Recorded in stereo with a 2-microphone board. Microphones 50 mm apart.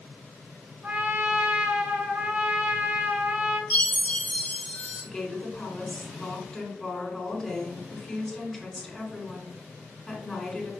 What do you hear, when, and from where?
0.8 s a trumpet: 30° right (ahead or behind), 1.1 m
3.7 s a chime: 35° left (ahead or behind), 1.4 m
5.0 s a woman speaking: 15° left (ahead or behind), 1.4 m